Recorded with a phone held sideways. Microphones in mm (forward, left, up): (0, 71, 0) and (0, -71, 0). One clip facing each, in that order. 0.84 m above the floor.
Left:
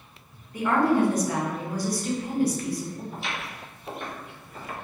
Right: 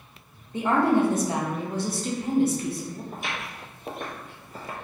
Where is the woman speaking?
25° right (ahead or behind), 0.8 m.